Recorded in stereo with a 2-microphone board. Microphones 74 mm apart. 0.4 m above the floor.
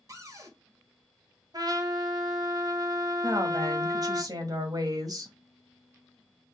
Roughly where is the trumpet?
Right.